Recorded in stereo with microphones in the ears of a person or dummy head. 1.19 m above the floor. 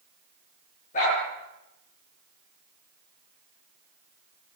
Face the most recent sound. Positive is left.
turn(degrees=40)  # may be behind; listen again after turning